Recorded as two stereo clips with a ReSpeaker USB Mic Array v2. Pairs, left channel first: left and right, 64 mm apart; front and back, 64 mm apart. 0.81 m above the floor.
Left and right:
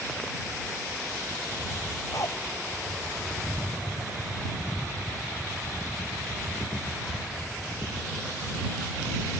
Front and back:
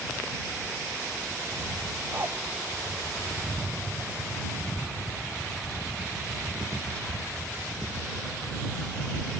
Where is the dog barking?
125° left.